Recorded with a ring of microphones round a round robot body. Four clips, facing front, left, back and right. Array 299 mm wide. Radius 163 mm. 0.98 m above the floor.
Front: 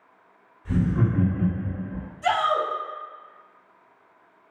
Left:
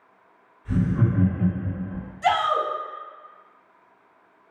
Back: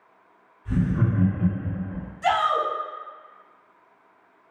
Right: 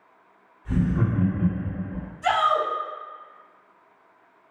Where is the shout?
115° left, 1.2 m.